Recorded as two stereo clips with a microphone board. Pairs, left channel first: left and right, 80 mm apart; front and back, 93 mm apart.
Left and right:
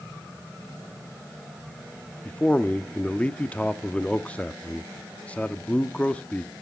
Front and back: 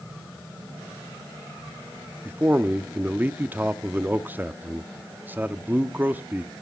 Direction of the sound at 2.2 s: 140° left.